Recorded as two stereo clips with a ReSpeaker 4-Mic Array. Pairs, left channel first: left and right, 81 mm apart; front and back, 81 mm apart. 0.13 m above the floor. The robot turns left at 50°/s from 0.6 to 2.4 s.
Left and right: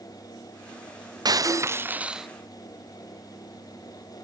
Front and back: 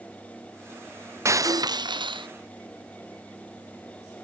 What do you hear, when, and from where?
1.2 s breaking glass: 125° right; by 2.3 s 175° right